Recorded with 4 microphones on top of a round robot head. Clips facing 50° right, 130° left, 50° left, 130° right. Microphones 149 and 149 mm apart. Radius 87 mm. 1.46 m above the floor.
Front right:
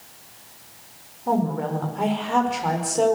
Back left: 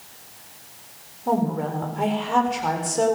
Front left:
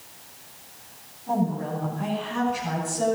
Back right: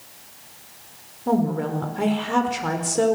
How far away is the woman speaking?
About 5 m.